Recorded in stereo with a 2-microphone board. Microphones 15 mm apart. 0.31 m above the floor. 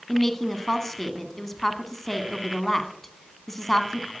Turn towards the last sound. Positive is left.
turn(degrees=20)  # may be behind; listen again after turning